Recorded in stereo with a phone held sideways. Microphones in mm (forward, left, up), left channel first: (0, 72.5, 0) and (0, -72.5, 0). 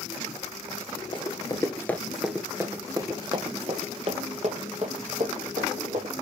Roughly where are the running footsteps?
Left.